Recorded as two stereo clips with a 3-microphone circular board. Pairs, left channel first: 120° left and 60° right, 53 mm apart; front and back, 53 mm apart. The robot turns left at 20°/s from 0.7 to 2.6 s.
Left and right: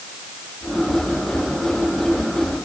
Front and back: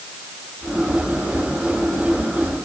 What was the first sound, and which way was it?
Only background noise.